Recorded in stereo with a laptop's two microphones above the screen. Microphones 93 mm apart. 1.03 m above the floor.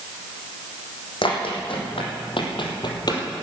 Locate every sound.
1.2 s running footsteps: 70° left (ahead or behind), 3.5 m; by 3.2 s 45° left (ahead or behind), 2.0 m